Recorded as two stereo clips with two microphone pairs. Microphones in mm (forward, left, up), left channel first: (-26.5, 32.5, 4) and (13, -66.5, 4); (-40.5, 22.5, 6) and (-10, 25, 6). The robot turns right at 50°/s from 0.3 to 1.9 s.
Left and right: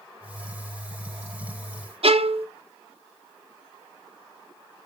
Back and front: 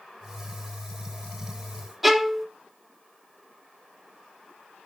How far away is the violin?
About 0.6 m.